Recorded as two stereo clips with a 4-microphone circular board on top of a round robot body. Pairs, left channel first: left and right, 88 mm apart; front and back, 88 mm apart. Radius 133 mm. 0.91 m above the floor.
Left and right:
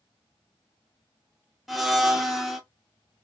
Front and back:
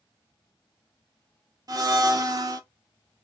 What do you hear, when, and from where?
1.7 s a blender: straight behind, 0.8 m